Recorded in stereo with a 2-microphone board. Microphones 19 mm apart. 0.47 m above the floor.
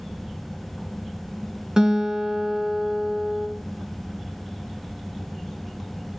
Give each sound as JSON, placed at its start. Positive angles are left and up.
{"t": 1.8, "sound": "a guitar", "side_deg": -30, "distance_m": 1.9}